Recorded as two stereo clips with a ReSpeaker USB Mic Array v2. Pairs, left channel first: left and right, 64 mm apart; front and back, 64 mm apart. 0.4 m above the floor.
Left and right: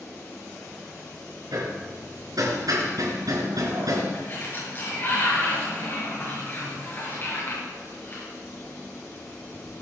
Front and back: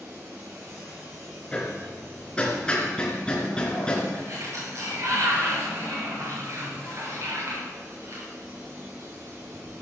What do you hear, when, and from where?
1.5 s hammering: 75° right, 3.5 m
4.1 s a sliding door: 145° left, 6.5 m